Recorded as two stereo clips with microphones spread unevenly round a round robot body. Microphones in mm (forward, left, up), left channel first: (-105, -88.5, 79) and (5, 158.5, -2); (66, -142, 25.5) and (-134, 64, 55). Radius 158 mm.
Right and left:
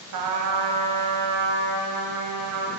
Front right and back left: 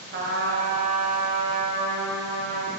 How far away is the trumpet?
About 1.2 m.